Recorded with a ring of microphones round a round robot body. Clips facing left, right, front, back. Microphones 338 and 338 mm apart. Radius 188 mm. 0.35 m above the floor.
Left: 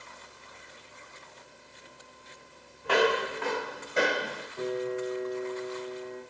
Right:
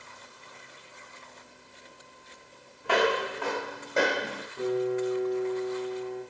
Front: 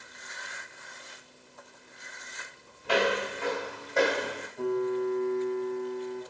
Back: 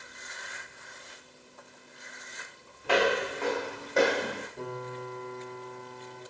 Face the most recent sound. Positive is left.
turn(degrees=-145)